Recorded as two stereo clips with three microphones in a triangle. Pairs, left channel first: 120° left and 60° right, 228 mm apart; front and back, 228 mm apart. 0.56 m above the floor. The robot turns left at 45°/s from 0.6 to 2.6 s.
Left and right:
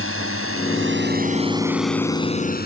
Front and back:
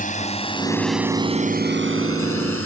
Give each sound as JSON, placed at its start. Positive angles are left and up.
{"t": 0.0, "sound": "a drone", "azimuth_deg": -55}